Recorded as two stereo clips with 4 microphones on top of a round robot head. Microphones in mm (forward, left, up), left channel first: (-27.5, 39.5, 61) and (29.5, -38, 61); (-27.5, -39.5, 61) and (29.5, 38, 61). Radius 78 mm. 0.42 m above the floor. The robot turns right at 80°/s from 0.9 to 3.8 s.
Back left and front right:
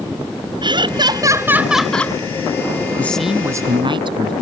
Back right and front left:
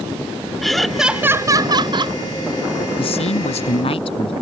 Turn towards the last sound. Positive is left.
turn(degrees=-95)